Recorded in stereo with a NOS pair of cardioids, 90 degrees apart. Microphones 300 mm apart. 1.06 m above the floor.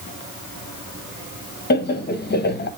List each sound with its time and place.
1.7 s laughter: 35° left, 0.9 m